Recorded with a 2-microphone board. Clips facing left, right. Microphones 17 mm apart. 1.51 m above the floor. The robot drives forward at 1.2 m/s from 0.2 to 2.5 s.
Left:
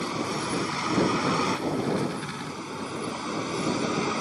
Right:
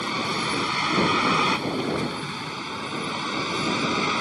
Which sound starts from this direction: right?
A vehicle, at 0.0 s.